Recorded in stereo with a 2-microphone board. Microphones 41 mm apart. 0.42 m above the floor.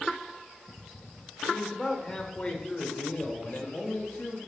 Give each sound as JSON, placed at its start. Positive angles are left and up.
{"t": 1.5, "sound": "a man speaking", "side_deg": 5, "distance_m": 1.4}